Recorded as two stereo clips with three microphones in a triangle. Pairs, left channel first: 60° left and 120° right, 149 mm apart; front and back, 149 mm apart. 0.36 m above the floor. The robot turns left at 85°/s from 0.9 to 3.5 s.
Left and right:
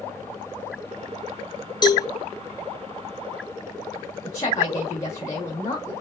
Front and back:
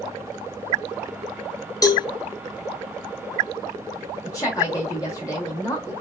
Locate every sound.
1.8 s a cowbell: 40° left, 0.5 m; by 2.1 s 20° left, 0.5 m
4.2 s a woman speaking: 25° left, 1.0 m